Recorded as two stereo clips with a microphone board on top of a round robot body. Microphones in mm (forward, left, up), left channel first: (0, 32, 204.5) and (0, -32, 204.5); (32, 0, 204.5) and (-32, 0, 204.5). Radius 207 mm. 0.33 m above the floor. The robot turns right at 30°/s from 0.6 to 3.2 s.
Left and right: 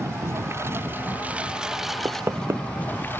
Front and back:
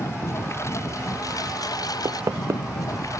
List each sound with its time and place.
0.0 s a lawn mower: 40° right; by 3.2 s 35° left
2.0 s knocking: 150° right; by 2.6 s 135° right